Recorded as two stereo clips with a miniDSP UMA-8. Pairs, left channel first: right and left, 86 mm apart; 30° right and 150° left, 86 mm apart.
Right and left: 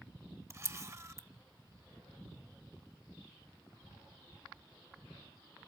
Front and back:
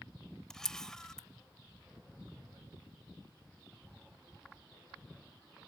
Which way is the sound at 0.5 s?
50° left.